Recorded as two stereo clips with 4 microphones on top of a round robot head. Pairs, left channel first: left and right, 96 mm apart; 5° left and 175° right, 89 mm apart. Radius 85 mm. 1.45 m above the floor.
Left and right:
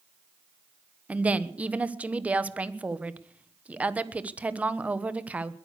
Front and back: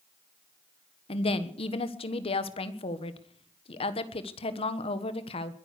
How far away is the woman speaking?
About 1.3 m.